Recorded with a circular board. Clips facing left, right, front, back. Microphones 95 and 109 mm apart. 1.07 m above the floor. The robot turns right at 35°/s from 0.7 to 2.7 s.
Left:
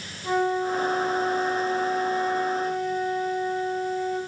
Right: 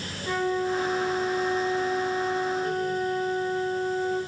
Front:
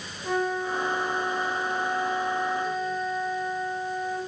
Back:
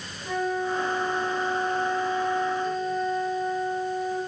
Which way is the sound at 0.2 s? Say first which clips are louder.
Left 2 dB, even; 30° left.